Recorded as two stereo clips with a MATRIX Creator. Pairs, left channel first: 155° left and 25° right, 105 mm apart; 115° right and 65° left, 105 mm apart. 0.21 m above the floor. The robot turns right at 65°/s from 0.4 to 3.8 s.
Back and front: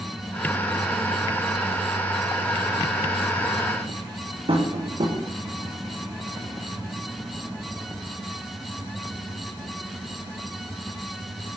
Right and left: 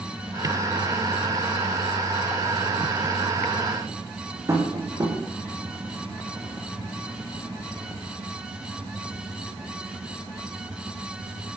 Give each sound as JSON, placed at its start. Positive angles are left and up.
{"t": 4.5, "sound": "tapping", "azimuth_deg": 5, "distance_m": 6.5}